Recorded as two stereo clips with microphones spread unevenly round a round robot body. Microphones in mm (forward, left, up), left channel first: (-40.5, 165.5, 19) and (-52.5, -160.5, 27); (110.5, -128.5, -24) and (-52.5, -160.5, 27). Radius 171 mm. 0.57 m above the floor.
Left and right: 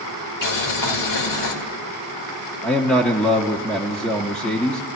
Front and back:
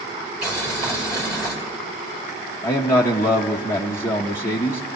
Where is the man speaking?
5° left, 0.7 m.